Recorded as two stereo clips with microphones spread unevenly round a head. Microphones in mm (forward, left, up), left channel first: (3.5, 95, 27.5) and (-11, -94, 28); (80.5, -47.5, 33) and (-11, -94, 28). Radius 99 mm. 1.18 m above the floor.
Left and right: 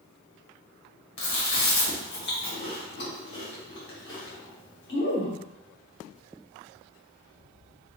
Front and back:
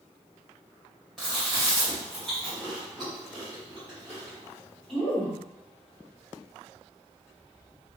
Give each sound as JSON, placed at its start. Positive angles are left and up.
{"t": 1.2, "sound": "chewing", "azimuth_deg": 120, "distance_m": 1.6}